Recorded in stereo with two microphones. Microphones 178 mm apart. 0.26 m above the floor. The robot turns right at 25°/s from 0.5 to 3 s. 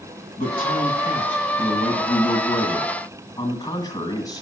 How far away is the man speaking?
About 1.8 m.